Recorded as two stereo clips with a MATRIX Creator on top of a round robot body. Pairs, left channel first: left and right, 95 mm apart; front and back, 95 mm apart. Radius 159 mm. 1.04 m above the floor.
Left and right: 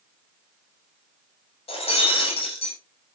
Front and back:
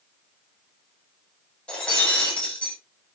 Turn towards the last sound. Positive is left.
turn(degrees=80)